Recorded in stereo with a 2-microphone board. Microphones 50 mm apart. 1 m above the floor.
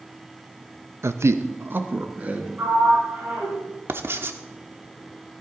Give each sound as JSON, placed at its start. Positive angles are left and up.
{"t": 1.0, "sound": "a man speaking", "side_deg": -65, "distance_m": 0.7}
{"t": 2.6, "sound": "a sliding door", "side_deg": -50, "distance_m": 5.0}
{"t": 3.9, "sound": "writing", "side_deg": -50, "distance_m": 0.9}